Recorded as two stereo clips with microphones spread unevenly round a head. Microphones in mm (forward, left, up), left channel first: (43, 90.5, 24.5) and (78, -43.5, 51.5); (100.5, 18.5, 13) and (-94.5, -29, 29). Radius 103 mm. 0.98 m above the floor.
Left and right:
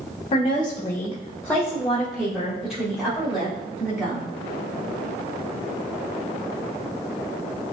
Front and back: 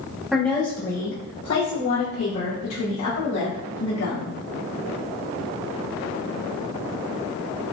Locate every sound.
0.3 s a woman speaking: 100° left, 0.7 m; by 4.3 s 5° left, 3 m